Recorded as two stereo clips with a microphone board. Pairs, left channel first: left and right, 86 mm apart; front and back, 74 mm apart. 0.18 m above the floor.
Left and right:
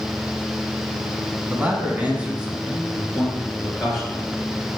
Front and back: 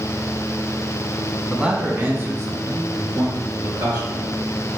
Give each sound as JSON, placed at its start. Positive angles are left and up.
{"t": 1.5, "sound": "a man speaking", "azimuth_deg": -120, "distance_m": 1.2}